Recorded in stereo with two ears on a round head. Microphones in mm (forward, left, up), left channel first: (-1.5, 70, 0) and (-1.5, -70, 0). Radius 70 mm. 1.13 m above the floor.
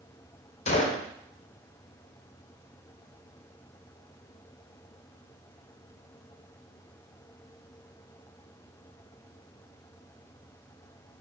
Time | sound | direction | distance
0.7 | a gunshot | 40° left (ahead or behind) | 0.5 m